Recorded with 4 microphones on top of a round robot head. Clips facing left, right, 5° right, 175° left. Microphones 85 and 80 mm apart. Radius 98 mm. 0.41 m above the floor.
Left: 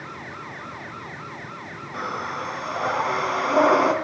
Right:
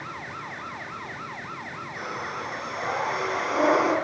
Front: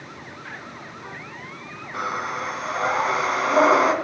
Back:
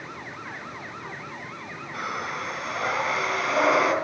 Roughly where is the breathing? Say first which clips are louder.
Left 5 dB, front 4 dB; ahead left.